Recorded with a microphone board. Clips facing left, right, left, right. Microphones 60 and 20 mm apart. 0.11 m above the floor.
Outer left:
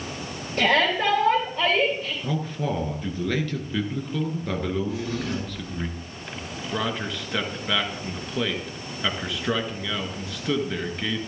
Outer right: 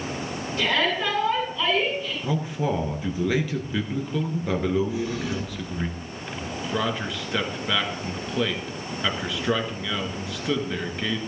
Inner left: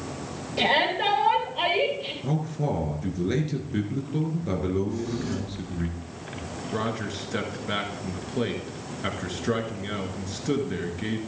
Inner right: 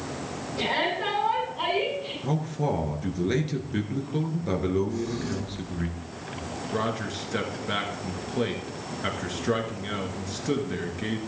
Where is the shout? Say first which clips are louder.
Outer left 3 dB, inner left 4 dB; 55° left (ahead or behind), 3.5 m.